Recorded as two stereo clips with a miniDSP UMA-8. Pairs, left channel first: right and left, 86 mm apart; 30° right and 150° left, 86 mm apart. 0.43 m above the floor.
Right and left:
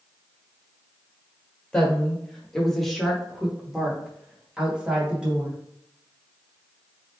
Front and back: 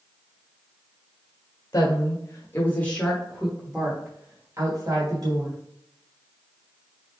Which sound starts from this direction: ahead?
A woman speaking, at 1.7 s.